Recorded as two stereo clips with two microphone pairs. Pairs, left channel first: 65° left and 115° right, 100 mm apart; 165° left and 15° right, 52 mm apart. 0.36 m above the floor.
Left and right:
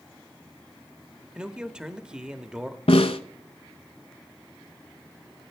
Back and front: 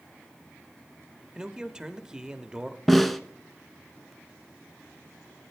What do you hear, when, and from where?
1.4 s a man speaking: 50° right, 0.8 m
2.9 s a snare drum: 75° left, 0.7 m